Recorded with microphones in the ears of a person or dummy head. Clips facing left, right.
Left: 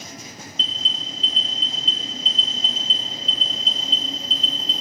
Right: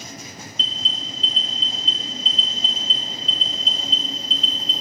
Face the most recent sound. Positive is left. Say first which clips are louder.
# even
turn(degrees=40)  # may be behind; listen again after turning